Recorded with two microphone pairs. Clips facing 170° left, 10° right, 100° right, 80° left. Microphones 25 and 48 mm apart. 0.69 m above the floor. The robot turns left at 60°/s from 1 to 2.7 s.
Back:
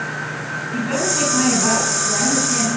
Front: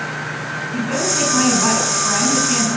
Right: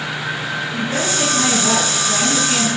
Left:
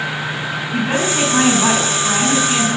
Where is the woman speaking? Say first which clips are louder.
Even, left 5 dB; 85° left, 8 m; by 2.7 s 15° right, 8 m.